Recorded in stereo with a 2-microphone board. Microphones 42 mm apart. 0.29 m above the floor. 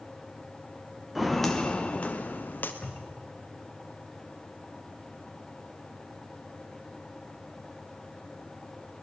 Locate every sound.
1.1 s footsteps: 5° right (ahead or behind), 1.5 m; by 2.7 s 50° left (ahead or behind), 2.5 m
2.8 s a cupboard door: 25° left (ahead or behind), 3 m